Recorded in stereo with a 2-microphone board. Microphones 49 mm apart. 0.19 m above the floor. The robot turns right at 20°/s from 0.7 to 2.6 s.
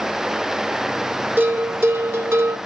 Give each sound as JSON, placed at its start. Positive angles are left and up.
{"t": 1.4, "sound": "a bell", "side_deg": -45, "distance_m": 1.0}